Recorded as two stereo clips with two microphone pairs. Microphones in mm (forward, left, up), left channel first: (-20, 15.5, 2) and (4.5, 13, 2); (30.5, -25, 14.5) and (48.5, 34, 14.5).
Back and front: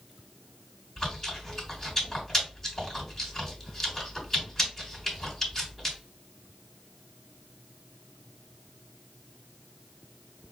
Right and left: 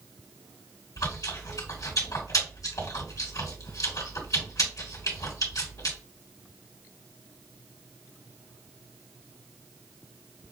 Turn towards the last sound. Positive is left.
turn(degrees=-115)